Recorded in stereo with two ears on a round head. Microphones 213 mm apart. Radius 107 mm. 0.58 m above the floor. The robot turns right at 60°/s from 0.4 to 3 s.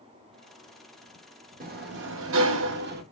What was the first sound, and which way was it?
A sliding door, 135° right.